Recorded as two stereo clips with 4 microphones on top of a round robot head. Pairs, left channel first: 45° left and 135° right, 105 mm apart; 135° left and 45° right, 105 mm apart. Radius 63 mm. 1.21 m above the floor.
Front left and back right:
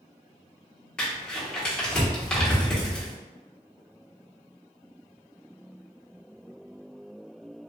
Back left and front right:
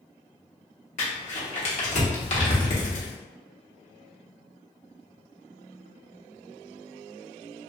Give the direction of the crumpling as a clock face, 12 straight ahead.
8 o'clock.